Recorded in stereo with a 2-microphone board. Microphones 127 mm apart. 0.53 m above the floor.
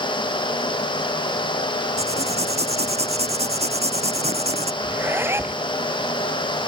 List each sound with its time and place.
2.0 s writing: 55° right (ahead or behind)
4.8 s a zipper: 20° right (ahead or behind)